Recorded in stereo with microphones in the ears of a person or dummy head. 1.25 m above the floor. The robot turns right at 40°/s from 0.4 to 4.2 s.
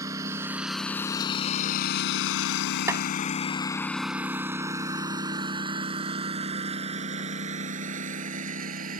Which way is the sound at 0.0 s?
20° right (ahead or behind).